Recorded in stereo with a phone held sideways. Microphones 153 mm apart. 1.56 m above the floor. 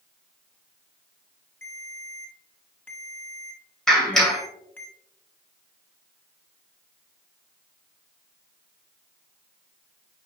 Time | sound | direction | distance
1.6 | a ringtone | 10° left (ahead or behind) | 1.2 m
3.9 | a clap | 5° left (ahead or behind) | 2.5 m